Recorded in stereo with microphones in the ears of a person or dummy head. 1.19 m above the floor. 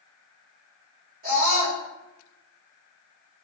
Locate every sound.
1.2 s a scream: 45° right (ahead or behind), 3.5 m